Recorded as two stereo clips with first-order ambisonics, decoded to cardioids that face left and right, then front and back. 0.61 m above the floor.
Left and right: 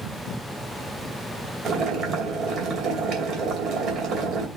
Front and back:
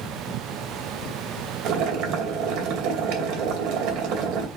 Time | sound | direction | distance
1.6 | boiling | 140° right | 2.5 m